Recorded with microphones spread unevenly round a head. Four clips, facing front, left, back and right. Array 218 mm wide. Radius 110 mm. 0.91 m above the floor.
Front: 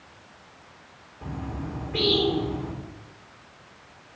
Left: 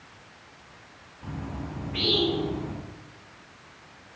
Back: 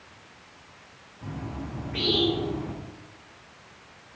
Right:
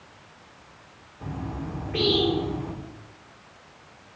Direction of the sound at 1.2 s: 60° right.